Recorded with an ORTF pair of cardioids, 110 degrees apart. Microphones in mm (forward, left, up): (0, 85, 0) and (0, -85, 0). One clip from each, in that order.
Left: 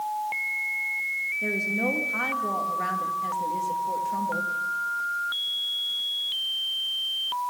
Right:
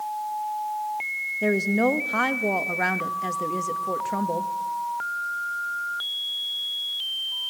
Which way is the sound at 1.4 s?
50° right.